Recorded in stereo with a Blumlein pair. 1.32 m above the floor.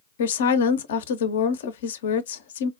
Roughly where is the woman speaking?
Ahead left.